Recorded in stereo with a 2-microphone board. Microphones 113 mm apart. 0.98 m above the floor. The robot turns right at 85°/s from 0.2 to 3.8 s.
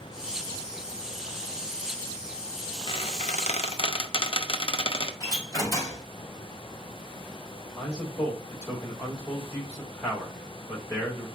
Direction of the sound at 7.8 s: 30° left (ahead or behind).